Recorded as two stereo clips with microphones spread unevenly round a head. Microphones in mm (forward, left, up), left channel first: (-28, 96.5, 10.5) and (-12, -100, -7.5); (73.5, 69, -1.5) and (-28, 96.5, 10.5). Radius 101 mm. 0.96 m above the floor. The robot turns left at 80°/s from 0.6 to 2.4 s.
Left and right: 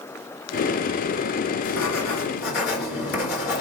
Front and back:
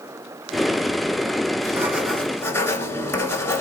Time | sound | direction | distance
1.6 | writing | 110° left | 1.8 m